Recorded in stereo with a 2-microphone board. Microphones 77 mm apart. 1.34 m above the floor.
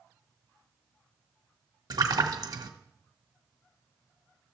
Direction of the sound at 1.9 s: 55° right (ahead or behind).